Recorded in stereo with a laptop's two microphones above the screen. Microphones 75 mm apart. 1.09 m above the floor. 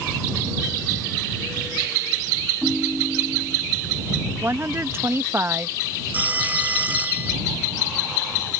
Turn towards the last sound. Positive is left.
turn(degrees=-25)  # may be behind; listen again after turning